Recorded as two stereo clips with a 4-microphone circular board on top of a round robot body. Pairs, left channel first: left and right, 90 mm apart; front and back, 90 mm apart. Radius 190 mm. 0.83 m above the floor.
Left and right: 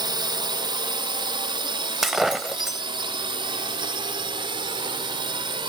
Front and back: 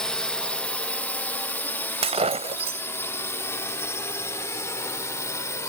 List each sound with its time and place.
0.0 s a drone: 80° right; by 5.7 s 60° right
2.0 s breaking glass: 175° right